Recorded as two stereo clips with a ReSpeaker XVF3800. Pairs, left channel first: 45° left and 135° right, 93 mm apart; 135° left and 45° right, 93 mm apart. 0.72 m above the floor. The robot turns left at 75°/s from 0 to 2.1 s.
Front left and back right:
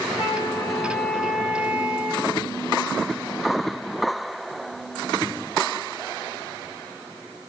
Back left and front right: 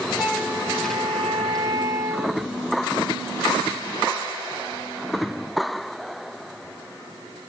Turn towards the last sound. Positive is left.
turn(degrees=-95)